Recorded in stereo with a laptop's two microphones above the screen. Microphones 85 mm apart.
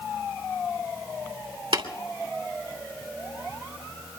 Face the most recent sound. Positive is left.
turn(degrees=-70)  # may be behind; listen again after turning